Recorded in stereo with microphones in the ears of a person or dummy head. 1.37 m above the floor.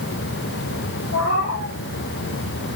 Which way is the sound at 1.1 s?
65° left (ahead or behind).